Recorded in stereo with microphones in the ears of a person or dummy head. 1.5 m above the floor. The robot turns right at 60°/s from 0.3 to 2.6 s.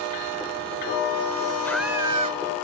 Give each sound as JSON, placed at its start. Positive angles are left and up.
{"t": 1.6, "sound": "a scream", "azimuth_deg": 175}